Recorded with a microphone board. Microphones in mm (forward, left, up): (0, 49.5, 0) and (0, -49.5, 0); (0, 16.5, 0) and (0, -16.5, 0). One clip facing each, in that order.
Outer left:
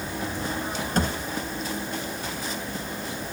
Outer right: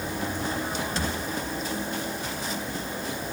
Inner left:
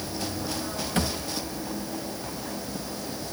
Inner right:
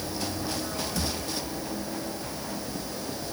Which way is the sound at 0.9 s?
55° left (ahead or behind).